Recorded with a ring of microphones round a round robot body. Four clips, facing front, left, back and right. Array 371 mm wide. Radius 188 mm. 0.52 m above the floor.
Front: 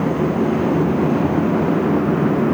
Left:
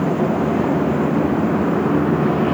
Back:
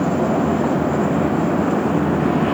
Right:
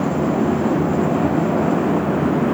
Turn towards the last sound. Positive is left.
No sound to turn to.